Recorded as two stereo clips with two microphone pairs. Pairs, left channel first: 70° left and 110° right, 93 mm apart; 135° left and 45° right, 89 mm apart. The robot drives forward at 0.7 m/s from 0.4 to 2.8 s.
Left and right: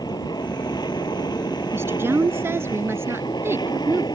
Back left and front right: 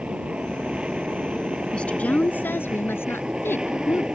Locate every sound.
0.0 s an aircraft: 35° left
1.7 s a woman speaking: 150° right; by 4.0 s 165° right